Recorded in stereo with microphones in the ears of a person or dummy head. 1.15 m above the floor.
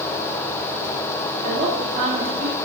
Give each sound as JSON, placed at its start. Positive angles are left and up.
{"t": 1.4, "sound": "a woman speaking", "side_deg": -45, "distance_m": 2.5}